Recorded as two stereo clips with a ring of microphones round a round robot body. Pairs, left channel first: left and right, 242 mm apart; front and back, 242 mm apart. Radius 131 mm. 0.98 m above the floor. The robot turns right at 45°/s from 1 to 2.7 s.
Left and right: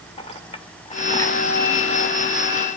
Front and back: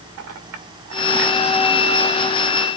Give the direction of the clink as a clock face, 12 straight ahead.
7 o'clock.